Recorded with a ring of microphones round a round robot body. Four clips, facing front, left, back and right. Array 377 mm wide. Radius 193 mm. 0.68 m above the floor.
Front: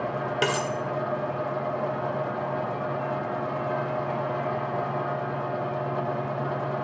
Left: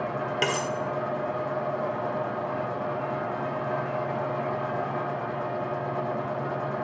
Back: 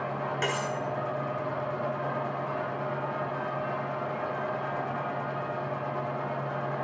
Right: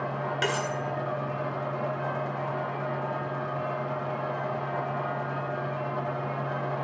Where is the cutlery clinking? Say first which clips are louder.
Left 1 dB, front 5 dB; 25° left, 1.0 m.